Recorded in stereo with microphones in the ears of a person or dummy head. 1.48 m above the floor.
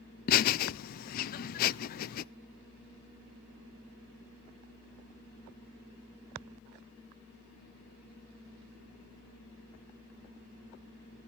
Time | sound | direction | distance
0.3 | laughter | 50° left (ahead or behind) | 0.5 m